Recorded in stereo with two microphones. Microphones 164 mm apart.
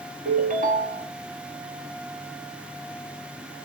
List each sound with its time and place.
0.2 s a ringtone: 55° right (ahead or behind), 0.8 m